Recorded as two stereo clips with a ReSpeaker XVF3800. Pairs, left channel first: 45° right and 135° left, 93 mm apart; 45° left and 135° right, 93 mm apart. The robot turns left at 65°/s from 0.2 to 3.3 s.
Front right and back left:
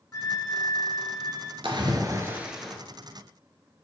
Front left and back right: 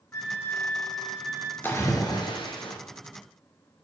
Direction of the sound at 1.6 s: 110° left.